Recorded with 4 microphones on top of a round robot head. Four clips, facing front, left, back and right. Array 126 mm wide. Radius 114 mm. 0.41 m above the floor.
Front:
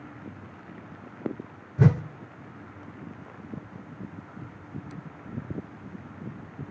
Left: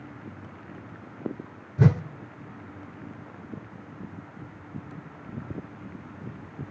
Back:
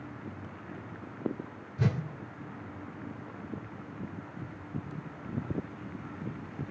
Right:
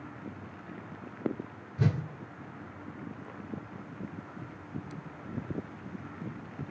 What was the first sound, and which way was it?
A whoosh, 40° left.